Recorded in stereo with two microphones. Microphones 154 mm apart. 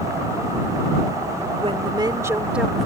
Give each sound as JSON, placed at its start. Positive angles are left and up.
{"t": 1.6, "sound": "a woman speaking", "side_deg": -40}